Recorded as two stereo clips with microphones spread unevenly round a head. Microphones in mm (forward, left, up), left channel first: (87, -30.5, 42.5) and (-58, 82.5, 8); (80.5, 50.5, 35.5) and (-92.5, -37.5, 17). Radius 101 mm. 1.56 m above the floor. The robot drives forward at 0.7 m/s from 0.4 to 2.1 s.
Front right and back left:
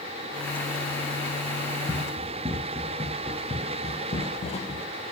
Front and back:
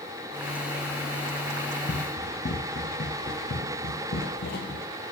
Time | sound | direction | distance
1.9 | running footsteps | 70° left | 2.5 m